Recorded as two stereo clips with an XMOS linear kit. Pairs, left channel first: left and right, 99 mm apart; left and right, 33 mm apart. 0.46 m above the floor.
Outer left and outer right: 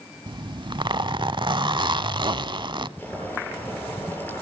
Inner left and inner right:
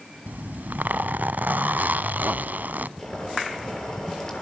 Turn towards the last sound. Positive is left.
turn(degrees=15)  # may be behind; listen again after turning